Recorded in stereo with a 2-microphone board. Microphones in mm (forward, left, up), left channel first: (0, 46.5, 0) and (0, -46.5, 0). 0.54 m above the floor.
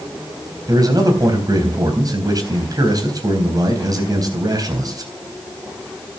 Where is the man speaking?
45° right (ahead or behind), 3.5 m.